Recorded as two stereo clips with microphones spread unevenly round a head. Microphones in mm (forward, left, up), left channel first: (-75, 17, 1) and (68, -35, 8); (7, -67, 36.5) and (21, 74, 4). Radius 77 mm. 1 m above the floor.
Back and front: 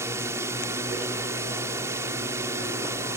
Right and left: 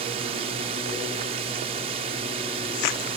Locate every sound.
0.0 s a drone: 50° left